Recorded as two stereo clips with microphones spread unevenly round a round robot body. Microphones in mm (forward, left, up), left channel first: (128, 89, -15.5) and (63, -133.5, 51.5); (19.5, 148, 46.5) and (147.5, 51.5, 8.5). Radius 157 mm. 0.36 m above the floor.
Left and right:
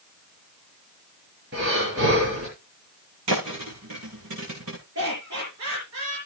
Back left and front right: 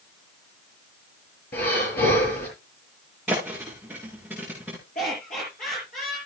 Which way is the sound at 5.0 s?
150° right.